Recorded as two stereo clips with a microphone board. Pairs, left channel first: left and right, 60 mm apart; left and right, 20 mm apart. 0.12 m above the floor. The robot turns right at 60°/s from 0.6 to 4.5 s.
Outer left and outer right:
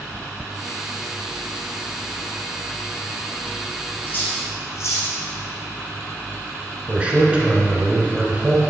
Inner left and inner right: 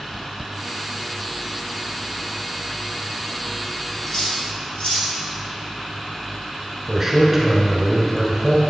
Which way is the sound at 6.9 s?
20° right (ahead or behind).